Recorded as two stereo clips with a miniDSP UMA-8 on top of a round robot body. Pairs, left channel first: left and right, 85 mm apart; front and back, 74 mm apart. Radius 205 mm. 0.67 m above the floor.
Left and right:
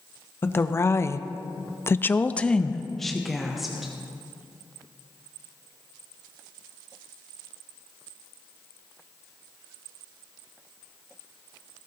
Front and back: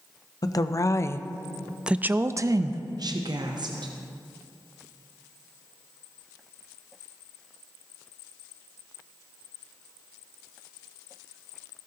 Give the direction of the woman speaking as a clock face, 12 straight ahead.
11 o'clock.